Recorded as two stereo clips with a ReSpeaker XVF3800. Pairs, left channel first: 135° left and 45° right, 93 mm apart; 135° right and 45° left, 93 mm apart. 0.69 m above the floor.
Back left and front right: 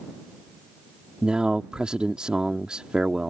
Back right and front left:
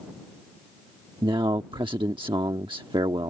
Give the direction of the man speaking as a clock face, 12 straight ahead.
11 o'clock.